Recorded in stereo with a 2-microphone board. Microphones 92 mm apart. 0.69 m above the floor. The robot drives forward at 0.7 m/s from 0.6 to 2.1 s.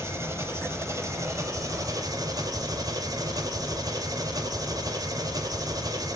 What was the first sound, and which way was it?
An engine running, 30° right (ahead or behind).